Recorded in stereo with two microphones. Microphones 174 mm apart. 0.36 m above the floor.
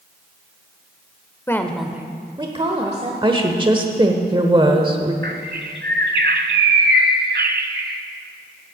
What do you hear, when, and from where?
1.5 s a woman speaking: 15° left (ahead or behind), 0.9 m; by 3.1 s 40° right (ahead or behind), 1.3 m
3.2 s a woman speaking: 30° right (ahead or behind), 1.0 m
5.2 s a bird: 75° right (ahead or behind), 0.9 m